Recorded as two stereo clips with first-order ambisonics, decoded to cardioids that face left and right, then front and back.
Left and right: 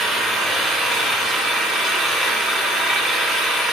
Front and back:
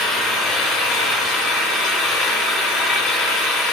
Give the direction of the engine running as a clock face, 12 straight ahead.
12 o'clock.